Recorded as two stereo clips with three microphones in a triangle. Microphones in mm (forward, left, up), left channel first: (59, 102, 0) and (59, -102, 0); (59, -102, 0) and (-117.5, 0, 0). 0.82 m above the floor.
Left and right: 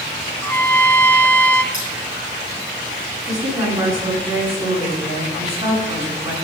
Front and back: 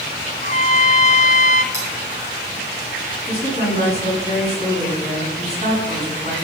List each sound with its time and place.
0.4 s a trumpet: 10° left, 0.9 m
1.7 s cutlery clinking: 135° right, 8 m
3.3 s a woman speaking: 150° right, 9.5 m